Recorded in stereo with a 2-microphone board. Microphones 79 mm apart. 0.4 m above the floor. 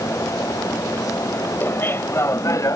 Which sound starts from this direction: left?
Laughter, at 1.6 s.